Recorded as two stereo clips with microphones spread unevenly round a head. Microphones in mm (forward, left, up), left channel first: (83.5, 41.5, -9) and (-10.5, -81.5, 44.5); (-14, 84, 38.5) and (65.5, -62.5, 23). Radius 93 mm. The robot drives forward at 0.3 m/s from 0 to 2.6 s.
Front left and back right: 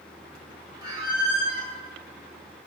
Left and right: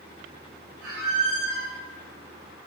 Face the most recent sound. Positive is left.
turn(degrees=-110)